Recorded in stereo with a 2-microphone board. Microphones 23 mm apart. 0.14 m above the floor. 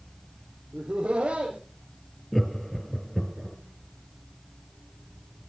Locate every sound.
0.7 s laughter: 60° right (ahead or behind), 5 m
2.3 s laughter: 10° left (ahead or behind), 2.5 m